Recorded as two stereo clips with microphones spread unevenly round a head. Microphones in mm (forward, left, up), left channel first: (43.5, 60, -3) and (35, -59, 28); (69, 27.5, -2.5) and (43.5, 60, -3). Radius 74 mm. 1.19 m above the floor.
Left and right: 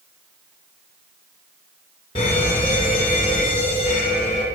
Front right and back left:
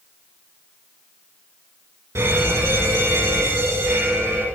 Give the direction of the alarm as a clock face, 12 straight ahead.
7 o'clock.